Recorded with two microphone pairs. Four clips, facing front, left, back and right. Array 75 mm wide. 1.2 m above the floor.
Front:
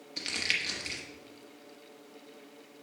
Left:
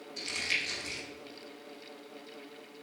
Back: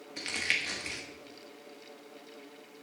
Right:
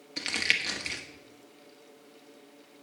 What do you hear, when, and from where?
0.2 s crumpling: 100° right, 1.3 m